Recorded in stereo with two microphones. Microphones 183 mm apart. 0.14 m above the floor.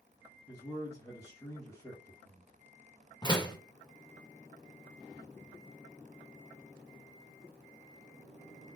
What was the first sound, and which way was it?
A man speaking, 20° left (ahead or behind).